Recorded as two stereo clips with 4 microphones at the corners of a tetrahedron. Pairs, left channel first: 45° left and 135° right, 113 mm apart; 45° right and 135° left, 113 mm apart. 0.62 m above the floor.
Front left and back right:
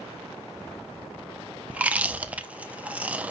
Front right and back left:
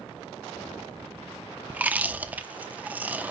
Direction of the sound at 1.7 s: 175° left.